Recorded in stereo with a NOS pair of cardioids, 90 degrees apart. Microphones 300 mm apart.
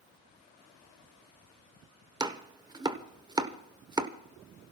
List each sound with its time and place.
2.2 s chopping: 15° right, 0.9 m